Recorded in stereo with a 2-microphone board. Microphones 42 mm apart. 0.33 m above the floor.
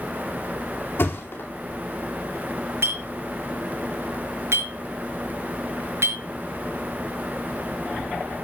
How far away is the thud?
About 2.5 m.